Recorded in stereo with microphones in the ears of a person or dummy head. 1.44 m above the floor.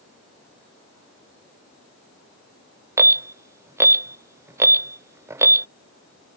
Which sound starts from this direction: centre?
An alarm, at 3.0 s.